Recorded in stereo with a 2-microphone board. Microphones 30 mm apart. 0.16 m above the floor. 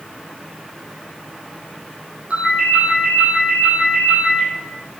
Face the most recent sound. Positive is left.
turn(degrees=-35)  # may be behind; listen again after turning